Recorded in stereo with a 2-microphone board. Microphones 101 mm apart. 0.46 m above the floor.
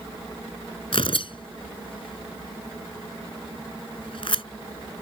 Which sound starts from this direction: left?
Tearing paper, at 0.9 s.